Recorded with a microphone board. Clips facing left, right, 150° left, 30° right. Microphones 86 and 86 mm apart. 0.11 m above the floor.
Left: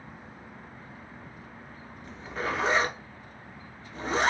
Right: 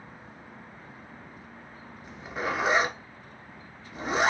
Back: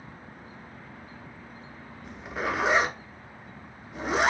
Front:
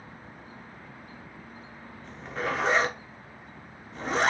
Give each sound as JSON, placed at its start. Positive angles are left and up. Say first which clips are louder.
{"t": 2.0, "sound": "a zipper", "louder": "right 1 dB, even", "azimuth_deg": -145, "distance_m": 0.8}